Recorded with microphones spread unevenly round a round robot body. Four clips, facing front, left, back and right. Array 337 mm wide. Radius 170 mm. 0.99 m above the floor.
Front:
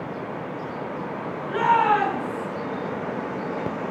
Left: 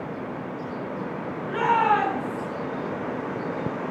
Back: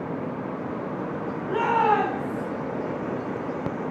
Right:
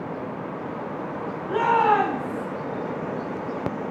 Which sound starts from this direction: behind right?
A shout, at 1.5 s.